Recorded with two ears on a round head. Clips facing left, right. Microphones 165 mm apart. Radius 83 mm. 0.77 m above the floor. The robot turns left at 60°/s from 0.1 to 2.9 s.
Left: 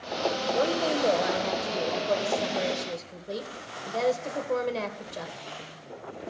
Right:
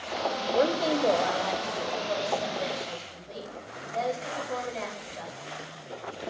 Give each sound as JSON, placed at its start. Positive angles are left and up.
{"t": 0.6, "sound": "a woman speaking", "azimuth_deg": -155, "distance_m": 3.5}